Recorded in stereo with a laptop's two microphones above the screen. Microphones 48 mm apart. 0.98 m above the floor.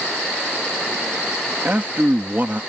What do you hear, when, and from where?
1.6 s a man speaking: 40° right (ahead or behind)